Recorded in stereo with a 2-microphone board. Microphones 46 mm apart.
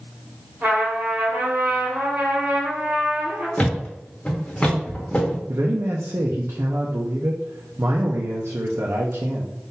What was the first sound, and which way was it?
A trumpet, 35° right (ahead or behind).